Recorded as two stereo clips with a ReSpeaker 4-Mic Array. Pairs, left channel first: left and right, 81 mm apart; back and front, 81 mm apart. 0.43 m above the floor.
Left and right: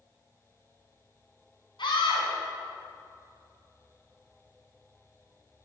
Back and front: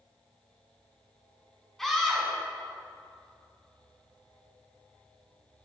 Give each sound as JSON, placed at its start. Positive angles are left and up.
{"t": 1.8, "sound": "a scream", "azimuth_deg": 95, "distance_m": 5.0}